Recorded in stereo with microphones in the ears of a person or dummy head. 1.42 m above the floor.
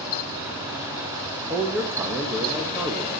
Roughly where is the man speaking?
Centre.